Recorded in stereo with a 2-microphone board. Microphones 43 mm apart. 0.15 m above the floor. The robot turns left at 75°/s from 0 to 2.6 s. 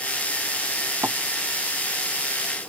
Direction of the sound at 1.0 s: 80° right.